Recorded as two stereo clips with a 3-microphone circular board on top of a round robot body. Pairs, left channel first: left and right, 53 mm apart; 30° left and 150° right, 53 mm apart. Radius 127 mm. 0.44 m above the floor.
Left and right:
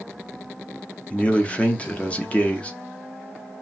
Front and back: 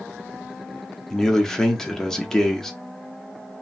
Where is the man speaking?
100° left, 0.8 m.